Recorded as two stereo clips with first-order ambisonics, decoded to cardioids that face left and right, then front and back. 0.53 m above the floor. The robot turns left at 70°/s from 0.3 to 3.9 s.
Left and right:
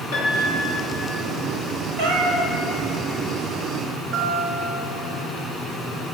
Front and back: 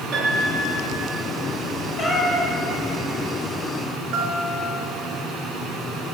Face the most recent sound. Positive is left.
turn(degrees=-155)